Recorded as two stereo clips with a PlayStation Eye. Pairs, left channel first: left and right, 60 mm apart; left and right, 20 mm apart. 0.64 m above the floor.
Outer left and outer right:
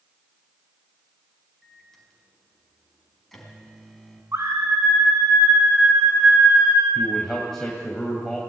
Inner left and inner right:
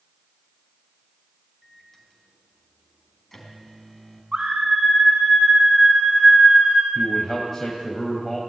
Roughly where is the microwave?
Centre.